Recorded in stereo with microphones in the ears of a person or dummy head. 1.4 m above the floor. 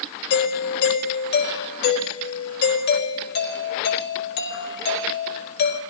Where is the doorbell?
50° left (ahead or behind), 4 m.